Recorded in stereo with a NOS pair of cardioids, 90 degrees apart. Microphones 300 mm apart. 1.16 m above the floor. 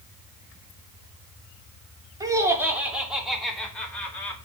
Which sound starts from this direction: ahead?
Laughter, at 2.2 s.